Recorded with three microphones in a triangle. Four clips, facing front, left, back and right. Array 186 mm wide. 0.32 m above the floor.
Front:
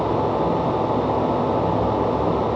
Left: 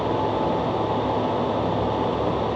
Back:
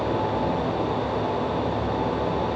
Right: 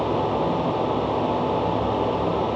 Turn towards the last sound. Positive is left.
No sound to turn to.